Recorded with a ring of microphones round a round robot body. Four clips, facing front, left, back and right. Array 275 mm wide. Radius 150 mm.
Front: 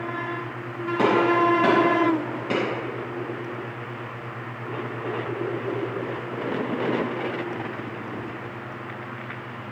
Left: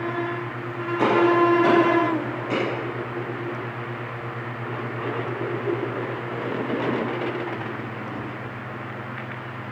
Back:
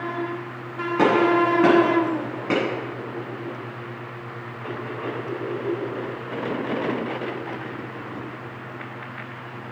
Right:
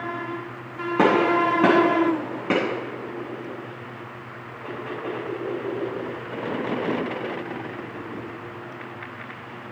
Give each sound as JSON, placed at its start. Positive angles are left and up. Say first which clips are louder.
{"t": 1.0, "sound": "a gunshot", "louder": "left 1 dB, back 1 dB", "azimuth_deg": -105, "distance_m": 9.0}